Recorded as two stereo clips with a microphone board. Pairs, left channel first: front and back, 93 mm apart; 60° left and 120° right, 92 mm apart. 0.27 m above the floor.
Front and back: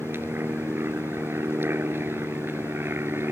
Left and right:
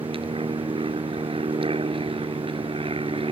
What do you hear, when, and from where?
0.0 s an aircraft: 115° right